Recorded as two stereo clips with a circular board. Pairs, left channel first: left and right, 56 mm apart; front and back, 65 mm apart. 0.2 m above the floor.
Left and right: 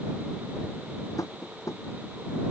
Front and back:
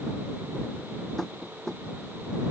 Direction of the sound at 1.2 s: 85° left.